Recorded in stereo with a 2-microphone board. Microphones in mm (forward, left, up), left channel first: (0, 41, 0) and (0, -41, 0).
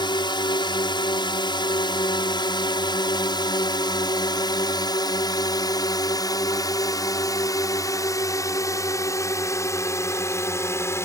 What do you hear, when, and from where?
0.0 s a drone: 65° left (ahead or behind); by 11.1 s 35° left (ahead or behind)